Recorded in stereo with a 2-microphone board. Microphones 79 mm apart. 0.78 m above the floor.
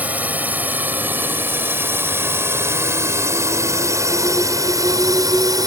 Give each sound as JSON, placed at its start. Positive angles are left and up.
{"t": 0.0, "sound": "a drone", "side_deg": -20}